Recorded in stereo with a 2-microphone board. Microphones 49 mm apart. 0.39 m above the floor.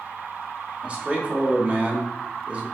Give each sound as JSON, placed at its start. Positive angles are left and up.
{"t": 0.8, "sound": "a man speaking", "side_deg": -25, "distance_m": 0.9}